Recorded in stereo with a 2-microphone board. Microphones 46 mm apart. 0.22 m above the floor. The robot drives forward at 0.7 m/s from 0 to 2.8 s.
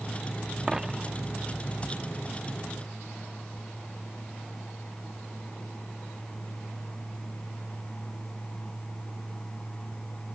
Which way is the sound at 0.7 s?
10° right (ahead or behind).